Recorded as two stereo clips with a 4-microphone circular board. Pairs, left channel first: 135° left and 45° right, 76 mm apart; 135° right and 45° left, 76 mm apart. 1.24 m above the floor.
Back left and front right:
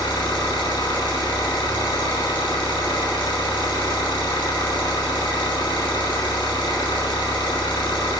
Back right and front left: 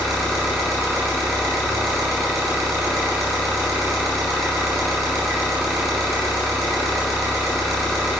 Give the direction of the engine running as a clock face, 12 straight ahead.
8 o'clock.